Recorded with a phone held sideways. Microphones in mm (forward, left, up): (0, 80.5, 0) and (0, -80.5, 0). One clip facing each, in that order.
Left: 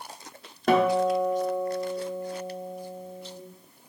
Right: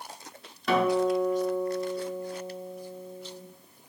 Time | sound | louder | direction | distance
0.7 | a guitar | left 2 dB | 50° left (ahead or behind) | 0.7 m